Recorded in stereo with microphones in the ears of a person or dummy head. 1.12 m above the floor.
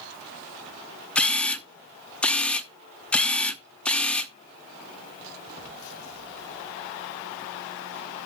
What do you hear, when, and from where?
1.1 s a camera shutter: 5° left (ahead or behind), 0.7 m